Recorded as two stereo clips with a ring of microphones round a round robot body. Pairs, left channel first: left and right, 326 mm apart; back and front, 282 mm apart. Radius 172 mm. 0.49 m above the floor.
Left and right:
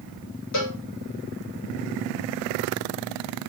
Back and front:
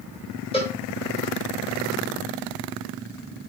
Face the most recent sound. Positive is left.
turn(degrees=110)